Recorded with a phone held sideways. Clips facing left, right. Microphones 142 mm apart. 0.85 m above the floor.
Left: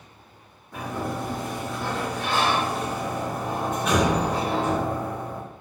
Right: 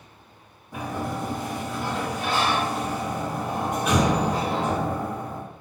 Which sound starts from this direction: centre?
A sliding door, at 0.7 s.